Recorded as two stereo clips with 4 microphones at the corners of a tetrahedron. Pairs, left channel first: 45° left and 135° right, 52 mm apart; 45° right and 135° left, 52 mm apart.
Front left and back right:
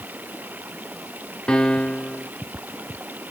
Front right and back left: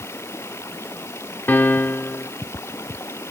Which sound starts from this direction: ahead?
A piano, at 1.5 s.